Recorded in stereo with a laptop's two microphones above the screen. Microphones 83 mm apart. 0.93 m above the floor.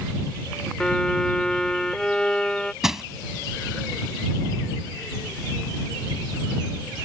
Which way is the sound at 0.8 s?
10° left (ahead or behind).